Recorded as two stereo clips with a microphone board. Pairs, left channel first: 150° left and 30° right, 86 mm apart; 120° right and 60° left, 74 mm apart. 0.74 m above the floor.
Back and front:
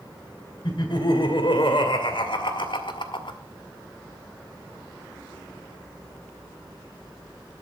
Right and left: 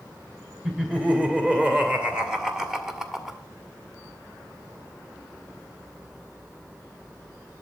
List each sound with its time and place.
0.6 s laughter: 135° left, 2.5 m; by 3.4 s 150° left, 1.2 m